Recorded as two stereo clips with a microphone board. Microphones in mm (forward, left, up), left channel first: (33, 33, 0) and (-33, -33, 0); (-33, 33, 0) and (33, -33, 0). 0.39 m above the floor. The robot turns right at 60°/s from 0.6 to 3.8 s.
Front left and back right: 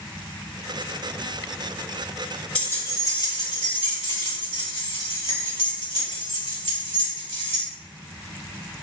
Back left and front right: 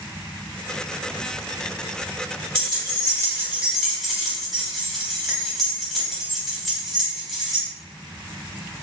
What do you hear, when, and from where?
2.5 s keys jangling: 30° right, 1.3 m; by 7.6 s 45° left, 1.3 m